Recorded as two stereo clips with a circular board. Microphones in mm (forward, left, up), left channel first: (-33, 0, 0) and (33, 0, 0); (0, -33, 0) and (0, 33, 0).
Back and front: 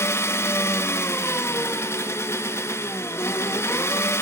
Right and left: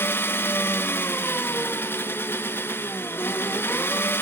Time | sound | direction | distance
0.0 | an engine running | 140° right | 0.7 m